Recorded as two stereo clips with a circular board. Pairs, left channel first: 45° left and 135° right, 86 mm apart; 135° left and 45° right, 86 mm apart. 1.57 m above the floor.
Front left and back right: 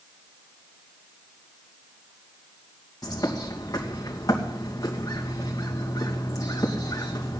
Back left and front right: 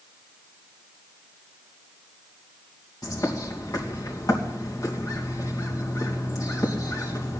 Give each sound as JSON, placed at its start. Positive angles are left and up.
{"t": 3.0, "sound": "a bird", "azimuth_deg": 90, "distance_m": 2.5}